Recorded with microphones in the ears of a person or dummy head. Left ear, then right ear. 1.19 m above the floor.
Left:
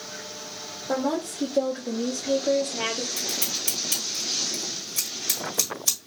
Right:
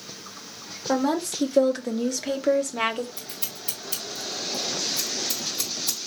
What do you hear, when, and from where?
0.9 s a woman speaking: 60° right (ahead or behind), 1.0 m; by 3.1 s 35° right (ahead or behind), 0.8 m
3.2 s scissors: 55° left (ahead or behind), 1.9 m